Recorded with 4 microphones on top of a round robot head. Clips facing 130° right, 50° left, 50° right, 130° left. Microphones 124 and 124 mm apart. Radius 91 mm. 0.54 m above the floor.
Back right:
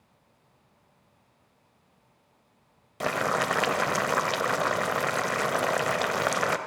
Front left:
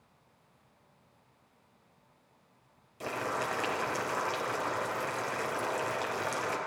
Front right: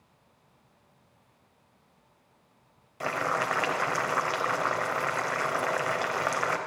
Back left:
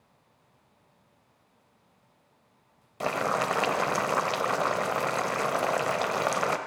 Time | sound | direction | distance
3.0 | boiling | 160° right | 0.6 m